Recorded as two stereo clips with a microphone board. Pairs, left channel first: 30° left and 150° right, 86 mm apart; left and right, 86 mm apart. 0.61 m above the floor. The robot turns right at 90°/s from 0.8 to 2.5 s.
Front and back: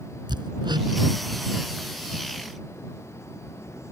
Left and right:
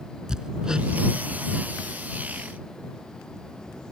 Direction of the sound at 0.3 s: 170° right.